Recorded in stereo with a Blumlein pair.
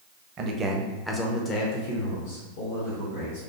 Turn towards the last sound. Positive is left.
turn(degrees=60)